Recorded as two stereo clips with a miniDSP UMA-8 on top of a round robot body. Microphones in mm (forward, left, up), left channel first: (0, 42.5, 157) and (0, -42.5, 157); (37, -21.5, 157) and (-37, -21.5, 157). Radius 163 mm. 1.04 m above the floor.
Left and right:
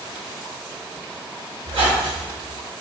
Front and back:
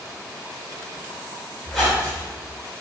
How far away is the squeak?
About 0.8 m.